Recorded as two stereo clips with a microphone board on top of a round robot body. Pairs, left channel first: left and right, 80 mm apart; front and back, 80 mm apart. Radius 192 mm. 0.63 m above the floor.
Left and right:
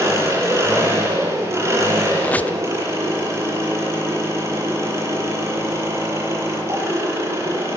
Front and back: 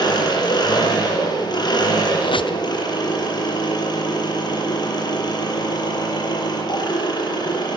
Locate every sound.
0.0 s an engine running: 35° right, 7.5 m
2.2 s a squeak: 20° left, 1.0 m